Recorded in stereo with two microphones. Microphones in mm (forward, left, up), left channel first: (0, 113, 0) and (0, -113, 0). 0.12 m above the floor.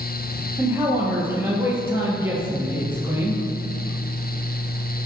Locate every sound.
0.6 s a man speaking: 10° right (ahead or behind), 2.5 m